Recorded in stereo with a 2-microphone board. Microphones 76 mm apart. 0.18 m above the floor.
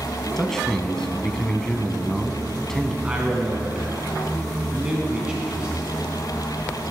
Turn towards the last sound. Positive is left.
turn(degrees=-15)  # may be behind; listen again after turning